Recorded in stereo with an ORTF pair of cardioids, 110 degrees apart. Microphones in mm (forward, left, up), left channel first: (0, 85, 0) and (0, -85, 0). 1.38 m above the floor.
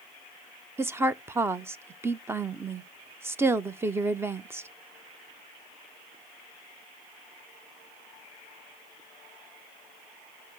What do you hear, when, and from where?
0.8 s a woman speaking: 15° right, 0.7 m